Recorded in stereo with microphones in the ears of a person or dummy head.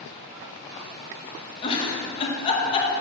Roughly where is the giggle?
Left.